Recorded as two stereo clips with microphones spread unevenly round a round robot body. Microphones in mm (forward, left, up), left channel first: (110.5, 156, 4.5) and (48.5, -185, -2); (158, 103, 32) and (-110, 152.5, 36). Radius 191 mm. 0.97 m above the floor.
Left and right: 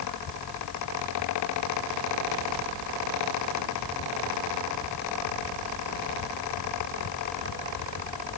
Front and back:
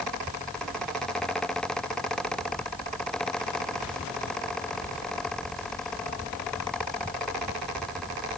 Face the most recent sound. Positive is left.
No sound to turn to.